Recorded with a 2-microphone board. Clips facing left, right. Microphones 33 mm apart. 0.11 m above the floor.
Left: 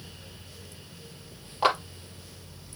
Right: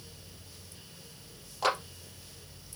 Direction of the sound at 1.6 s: 25° left (ahead or behind).